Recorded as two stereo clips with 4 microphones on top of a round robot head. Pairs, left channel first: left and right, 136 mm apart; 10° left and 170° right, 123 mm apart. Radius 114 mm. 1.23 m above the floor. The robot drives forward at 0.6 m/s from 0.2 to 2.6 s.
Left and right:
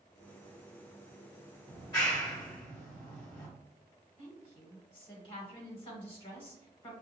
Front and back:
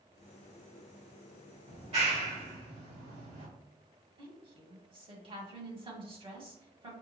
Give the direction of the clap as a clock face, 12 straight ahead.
7 o'clock.